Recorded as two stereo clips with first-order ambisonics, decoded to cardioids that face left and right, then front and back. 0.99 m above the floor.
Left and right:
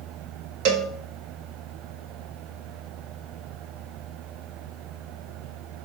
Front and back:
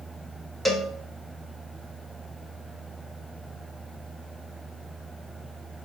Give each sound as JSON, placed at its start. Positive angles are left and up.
{"t": 0.7, "sound": "a cowbell", "azimuth_deg": -80, "distance_m": 1.3}